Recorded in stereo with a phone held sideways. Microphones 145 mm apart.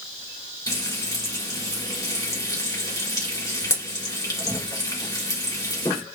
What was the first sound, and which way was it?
Frying, 20° left (ahead or behind).